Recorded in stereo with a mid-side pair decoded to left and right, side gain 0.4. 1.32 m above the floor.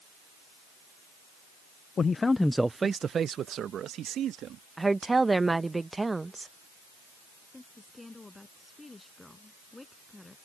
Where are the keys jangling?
I don't hear keys jangling.